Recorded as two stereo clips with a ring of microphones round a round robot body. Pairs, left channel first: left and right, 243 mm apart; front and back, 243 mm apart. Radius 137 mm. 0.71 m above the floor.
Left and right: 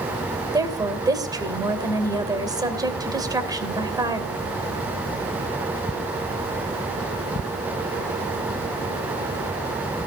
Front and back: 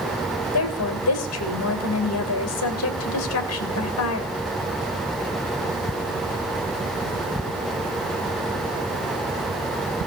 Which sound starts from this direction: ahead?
A woman speaking, at 0.5 s.